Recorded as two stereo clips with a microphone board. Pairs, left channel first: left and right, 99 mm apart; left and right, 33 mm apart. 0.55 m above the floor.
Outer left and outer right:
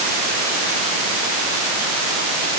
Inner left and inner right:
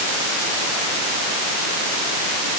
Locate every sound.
Only background noise.